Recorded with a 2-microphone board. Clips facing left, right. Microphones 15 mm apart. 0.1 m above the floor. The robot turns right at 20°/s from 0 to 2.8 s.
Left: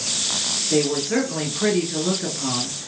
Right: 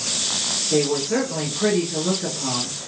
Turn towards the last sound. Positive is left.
turn(degrees=20)  # may be behind; listen again after turning